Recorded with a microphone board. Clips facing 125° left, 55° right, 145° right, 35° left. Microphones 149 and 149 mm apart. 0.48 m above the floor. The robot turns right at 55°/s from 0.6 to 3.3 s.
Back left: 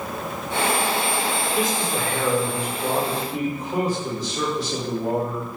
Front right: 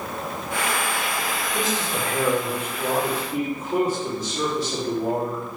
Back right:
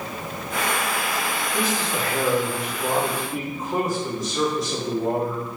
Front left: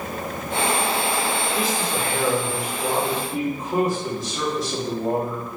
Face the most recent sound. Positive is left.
turn(degrees=-65)